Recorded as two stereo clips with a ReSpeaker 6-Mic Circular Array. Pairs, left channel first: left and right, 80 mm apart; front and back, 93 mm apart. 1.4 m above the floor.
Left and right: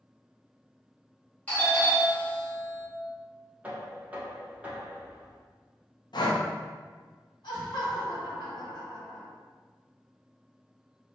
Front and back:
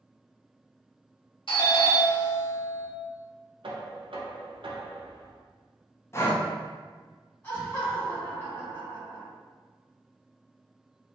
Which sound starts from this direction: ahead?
A doorbell, at 1.5 s.